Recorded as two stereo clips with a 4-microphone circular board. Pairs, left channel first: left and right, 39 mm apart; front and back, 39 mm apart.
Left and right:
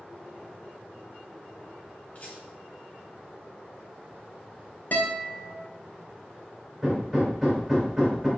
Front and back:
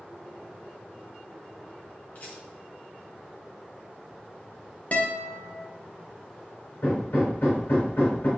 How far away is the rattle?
About 1.9 m.